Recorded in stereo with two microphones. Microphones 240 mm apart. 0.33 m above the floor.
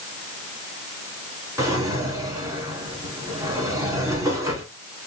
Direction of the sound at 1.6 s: 15° right (ahead or behind).